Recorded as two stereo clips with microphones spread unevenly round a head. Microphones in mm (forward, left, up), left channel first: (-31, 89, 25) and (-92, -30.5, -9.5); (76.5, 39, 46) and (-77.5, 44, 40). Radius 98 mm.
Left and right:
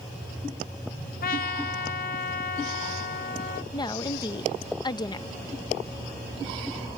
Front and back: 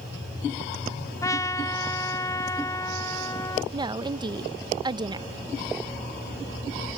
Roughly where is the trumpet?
Ahead left.